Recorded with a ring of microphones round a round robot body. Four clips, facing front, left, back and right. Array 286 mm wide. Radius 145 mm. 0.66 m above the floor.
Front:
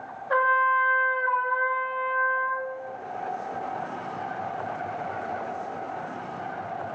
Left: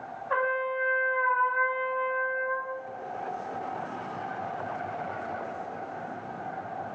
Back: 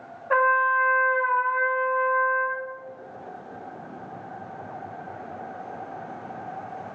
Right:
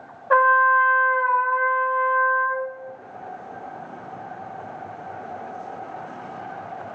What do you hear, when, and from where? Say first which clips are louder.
0.3 s a trumpet: right 12 dB, back 1 dB; 100° right, 0.7 m